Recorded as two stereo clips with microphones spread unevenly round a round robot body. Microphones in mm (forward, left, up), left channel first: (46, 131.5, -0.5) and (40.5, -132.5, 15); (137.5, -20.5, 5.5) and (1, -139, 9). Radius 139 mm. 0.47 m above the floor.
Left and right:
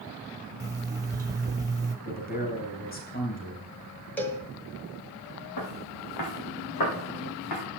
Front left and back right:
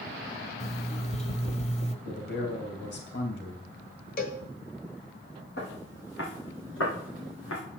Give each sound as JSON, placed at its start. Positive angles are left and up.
{"t": 0.6, "sound": "an alarm clock", "azimuth_deg": -15, "distance_m": 1.4}
{"t": 2.0, "sound": "a man speaking", "azimuth_deg": 35, "distance_m": 3.0}
{"t": 4.2, "sound": "a cowbell", "azimuth_deg": 5, "distance_m": 1.8}
{"t": 5.6, "sound": "footsteps", "azimuth_deg": 95, "distance_m": 4.5}